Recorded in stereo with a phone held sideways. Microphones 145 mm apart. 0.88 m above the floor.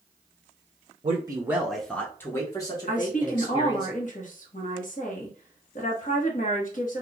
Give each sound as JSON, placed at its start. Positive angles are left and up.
{"t": 1.0, "sound": "a man speaking", "side_deg": -40, "distance_m": 0.5}
{"t": 2.9, "sound": "a woman speaking", "side_deg": 60, "distance_m": 1.0}